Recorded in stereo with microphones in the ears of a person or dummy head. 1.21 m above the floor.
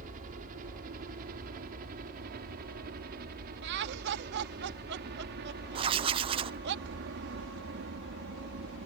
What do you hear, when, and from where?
0.0 s a helicopter: 50° right (ahead or behind); by 8.9 s 60° right (ahead or behind)
3.6 s laughter: 65° right (ahead or behind)
5.8 s writing: 30° right (ahead or behind)